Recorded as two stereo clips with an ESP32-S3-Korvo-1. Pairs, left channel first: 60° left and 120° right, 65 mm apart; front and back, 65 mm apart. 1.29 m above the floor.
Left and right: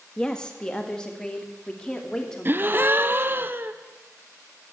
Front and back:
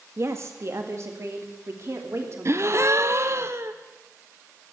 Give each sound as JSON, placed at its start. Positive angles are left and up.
{"t": 0.2, "sound": "a woman speaking", "azimuth_deg": 135, "distance_m": 1.9}
{"t": 2.5, "sound": "a gasp", "azimuth_deg": -160, "distance_m": 0.7}